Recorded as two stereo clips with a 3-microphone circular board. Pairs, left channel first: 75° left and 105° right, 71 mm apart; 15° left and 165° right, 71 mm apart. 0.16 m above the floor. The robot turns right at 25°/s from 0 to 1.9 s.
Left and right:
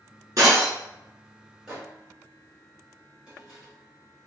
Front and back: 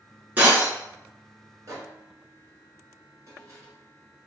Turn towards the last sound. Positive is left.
turn(degrees=180)